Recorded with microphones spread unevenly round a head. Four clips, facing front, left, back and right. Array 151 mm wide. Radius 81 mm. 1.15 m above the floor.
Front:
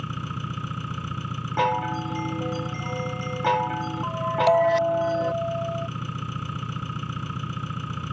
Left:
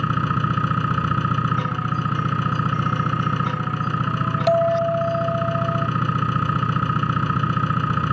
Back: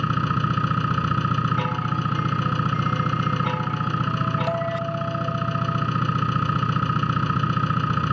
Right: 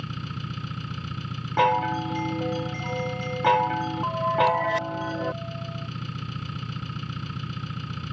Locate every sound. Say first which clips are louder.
0.0 s an engine running: left 14 dB, back 10 dB; 130° left
1.6 s a chime: right 3 dB, front 2 dB; 55° right
4.5 s a bell: left 7 dB, front 7 dB; 70° left